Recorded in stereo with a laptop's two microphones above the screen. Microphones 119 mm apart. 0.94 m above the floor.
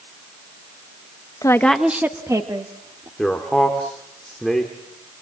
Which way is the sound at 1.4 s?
25° left (ahead or behind).